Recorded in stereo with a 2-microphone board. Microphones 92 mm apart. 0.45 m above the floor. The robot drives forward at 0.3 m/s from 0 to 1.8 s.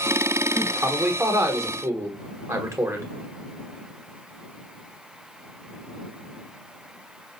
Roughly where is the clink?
No clink in this recording.